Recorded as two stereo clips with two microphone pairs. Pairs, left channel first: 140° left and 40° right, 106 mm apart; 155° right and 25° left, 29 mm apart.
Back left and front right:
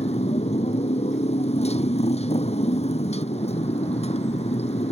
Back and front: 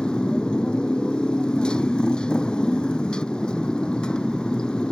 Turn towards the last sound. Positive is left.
turn(degrees=145)